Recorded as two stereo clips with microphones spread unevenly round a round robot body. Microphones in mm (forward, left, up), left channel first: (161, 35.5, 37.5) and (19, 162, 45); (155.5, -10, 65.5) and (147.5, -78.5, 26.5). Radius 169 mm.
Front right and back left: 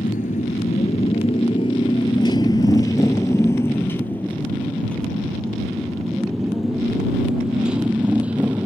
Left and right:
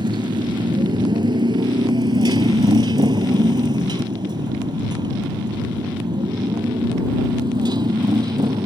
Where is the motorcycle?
110° right; by 8.7 s 135° right.